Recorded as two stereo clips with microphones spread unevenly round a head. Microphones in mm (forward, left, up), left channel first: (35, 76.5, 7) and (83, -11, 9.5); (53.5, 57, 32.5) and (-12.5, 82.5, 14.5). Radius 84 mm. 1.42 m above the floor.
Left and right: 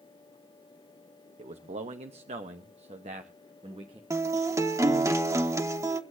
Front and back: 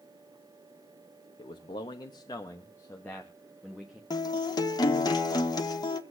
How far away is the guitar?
About 1.4 m.